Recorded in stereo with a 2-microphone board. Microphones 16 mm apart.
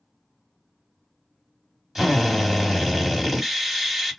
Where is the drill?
15° right (ahead or behind), 1.8 m.